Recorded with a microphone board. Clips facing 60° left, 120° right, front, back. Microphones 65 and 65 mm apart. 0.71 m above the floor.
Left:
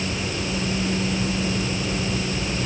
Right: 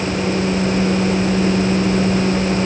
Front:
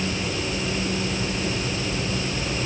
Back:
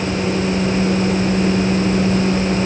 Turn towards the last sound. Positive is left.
No sound to turn to.